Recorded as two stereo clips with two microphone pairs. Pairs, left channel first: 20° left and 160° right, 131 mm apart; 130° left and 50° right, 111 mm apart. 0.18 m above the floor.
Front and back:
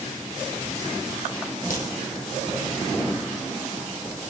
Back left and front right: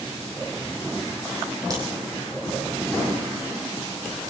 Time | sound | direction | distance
1.7 | a crack | 10° left | 3.5 m